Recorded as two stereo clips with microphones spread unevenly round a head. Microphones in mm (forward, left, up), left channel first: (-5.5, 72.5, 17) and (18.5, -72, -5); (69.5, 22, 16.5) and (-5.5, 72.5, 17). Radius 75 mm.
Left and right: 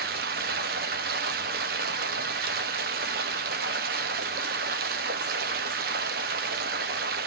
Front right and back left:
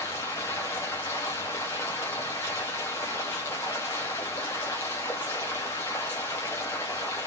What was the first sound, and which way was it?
Running water, 105° right.